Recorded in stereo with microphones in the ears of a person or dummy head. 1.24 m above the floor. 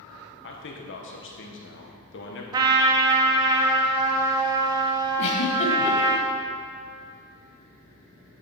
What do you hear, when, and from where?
0.4 s a man speaking: 60° left (ahead or behind), 1.2 m
2.5 s a trumpet: 25° right (ahead or behind), 0.7 m
5.2 s a giggle: 35° left (ahead or behind), 1.3 m